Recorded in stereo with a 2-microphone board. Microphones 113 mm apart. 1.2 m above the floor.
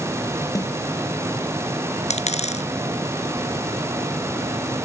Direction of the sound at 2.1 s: 85° left.